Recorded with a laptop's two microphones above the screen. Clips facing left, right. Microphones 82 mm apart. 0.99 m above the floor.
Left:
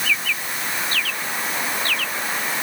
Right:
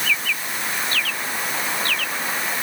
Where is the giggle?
I don't hear a giggle.